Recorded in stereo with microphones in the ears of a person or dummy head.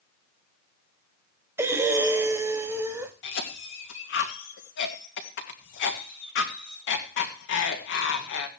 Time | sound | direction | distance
1.6 | breathing | 15° right (ahead or behind) | 1.0 m
3.2 | a cough | 65° left (ahead or behind) | 2.5 m